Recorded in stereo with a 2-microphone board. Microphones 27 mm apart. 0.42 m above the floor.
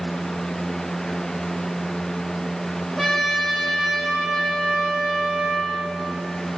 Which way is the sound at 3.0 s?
5° right (ahead or behind).